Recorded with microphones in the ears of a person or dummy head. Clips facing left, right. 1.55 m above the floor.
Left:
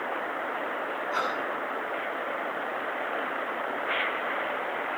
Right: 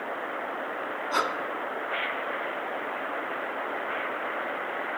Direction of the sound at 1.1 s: 65° right (ahead or behind).